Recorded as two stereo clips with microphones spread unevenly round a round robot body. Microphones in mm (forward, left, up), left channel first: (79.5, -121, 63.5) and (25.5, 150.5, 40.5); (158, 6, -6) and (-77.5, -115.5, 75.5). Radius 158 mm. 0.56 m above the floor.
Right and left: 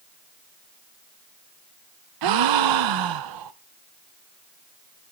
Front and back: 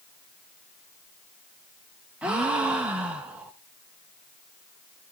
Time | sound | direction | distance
2.2 | a gasp | 125° left | 0.5 m